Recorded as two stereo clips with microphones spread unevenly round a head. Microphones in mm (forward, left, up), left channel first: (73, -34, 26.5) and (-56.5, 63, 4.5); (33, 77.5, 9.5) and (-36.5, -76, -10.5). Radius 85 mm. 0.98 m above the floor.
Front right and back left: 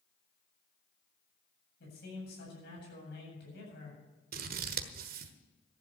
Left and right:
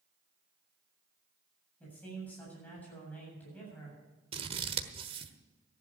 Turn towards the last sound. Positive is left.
turn(degrees=-175)